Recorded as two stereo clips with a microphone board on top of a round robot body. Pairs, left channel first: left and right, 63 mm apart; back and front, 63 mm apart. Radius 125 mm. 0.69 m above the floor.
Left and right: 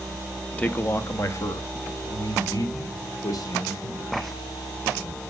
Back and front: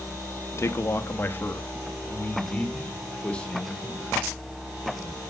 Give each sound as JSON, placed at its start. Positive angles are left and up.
{"t": 0.6, "sound": "a man speaking", "azimuth_deg": 150, "distance_m": 1.0}